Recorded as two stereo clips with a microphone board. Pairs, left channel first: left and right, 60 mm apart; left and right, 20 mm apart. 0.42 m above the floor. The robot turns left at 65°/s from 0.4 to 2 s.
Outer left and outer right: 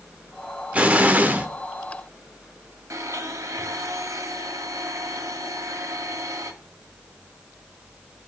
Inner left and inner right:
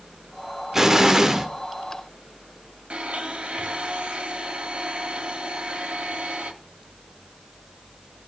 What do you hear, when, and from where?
0.7 s an explosion: 20° right (ahead or behind), 1.0 m; by 1.5 s 25° right (ahead or behind), 1.0 m
2.9 s a blender: 60° right (ahead or behind), 1.8 m